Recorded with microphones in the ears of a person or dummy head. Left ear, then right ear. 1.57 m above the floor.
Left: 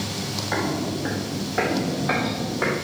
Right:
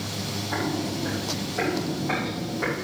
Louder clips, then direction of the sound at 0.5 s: Left 2 dB; 60° left (ahead or behind).